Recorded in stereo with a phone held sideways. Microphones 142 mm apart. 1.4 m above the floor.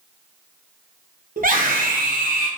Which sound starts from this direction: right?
A scream, at 1.4 s.